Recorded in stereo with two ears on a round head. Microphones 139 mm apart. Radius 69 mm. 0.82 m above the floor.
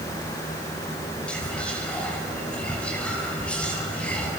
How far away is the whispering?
About 6.5 m.